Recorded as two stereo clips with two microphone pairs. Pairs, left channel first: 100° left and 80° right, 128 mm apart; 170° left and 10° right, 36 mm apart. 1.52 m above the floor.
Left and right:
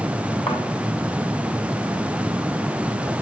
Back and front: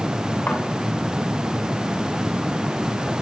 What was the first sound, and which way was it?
A thud, 140° left.